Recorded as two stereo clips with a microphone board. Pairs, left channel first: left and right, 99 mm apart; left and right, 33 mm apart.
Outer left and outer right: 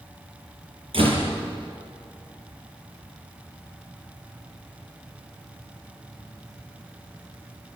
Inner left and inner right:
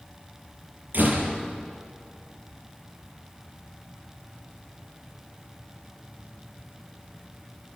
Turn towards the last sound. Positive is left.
turn(degrees=-65)  # may be behind; listen again after turning